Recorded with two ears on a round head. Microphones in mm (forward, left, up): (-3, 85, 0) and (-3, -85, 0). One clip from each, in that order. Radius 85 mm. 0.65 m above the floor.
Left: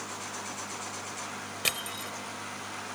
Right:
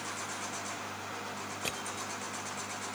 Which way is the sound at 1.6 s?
55° left (ahead or behind).